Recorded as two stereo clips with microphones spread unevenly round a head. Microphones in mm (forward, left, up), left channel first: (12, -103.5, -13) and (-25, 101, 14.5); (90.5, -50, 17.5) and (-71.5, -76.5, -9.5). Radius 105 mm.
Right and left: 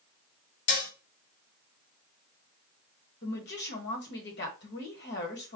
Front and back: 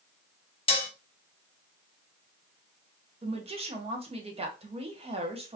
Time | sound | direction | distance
0.7 | dishes clattering | 45° right | 1.1 m
3.2 | a woman speaking | 120° right | 1.5 m